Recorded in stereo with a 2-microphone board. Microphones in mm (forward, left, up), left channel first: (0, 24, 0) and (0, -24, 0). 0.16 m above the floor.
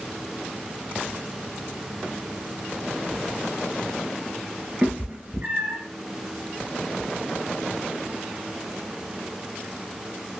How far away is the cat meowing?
About 0.9 m.